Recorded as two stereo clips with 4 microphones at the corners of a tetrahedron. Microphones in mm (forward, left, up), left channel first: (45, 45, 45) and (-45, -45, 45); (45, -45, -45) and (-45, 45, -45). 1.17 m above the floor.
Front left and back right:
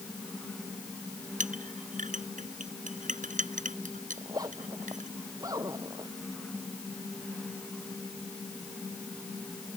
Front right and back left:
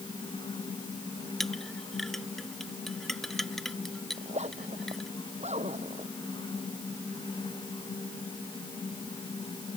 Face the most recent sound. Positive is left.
turn(degrees=165)